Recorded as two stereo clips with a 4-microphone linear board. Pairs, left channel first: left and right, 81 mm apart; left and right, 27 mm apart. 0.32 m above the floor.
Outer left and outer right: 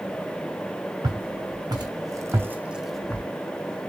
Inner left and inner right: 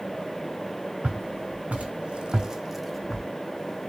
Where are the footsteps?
70° right (ahead or behind), 2 m; by 3.3 s 20° left (ahead or behind), 1.0 m.